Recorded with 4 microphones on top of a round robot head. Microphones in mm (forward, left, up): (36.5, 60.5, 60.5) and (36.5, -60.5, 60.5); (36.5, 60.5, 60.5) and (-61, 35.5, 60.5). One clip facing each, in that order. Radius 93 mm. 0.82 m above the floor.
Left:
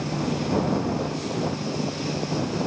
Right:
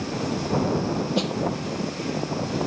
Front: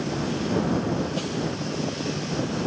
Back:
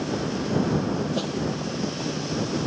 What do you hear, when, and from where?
1.1 s a snare drum: 90° right